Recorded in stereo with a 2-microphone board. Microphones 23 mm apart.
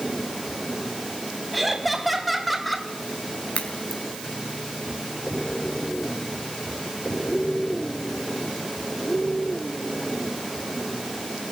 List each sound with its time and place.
1.5 s laughter: centre (ahead or behind), 3.5 m; by 2.9 s 5° left (ahead or behind), 3 m
3.5 s a crack: 65° left (ahead or behind), 4 m